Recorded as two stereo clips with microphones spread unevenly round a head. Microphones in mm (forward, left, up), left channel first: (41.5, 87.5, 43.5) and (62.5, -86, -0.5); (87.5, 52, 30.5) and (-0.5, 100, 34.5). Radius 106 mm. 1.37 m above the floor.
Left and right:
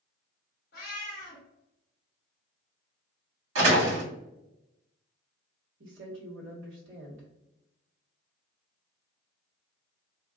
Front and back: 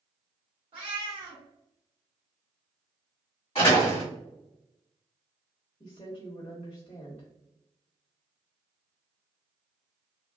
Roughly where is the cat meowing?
Behind left.